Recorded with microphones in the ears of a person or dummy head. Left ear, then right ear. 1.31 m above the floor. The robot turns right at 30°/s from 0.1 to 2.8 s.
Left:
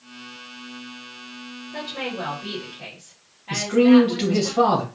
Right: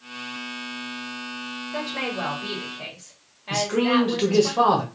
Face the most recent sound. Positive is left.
turn(degrees=-15)  # may be behind; listen again after turning